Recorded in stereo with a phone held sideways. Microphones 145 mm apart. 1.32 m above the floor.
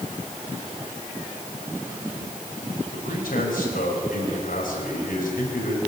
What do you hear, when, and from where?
2.9 s a man speaking: 85° left, 5.5 m